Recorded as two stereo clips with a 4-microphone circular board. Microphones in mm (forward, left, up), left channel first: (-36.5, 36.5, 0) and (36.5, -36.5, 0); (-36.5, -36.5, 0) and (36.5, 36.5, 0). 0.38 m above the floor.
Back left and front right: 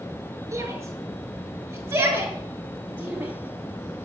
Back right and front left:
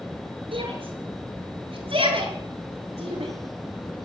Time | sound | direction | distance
0.5 | a shout | 15° left | 6.5 m